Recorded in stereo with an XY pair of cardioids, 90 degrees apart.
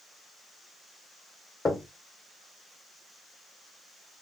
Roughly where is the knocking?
Ahead left.